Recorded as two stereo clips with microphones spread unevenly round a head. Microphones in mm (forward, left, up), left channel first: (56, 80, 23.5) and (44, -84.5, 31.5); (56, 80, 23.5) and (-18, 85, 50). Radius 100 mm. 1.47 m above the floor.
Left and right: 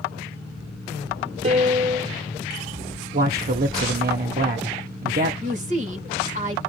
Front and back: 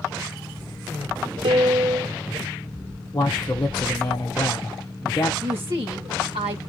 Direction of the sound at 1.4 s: 150° right.